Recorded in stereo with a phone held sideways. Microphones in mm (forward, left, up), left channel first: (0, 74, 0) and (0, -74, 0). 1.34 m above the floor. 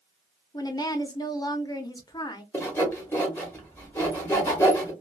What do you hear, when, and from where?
0.5 s a woman speaking: 25° left (ahead or behind), 0.5 m
2.5 s sawing: 15° left (ahead or behind), 1.0 m